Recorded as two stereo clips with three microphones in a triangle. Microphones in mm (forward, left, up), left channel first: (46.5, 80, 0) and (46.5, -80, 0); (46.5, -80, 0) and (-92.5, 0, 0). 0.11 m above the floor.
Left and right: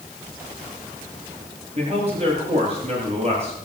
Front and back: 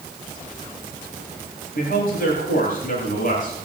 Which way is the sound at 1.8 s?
45° right.